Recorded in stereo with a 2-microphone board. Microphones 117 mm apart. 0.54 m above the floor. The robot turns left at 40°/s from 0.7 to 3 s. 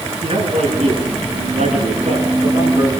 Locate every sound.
0.2 s a man speaking: 60° right, 8 m; by 2.9 s 150° right, 8 m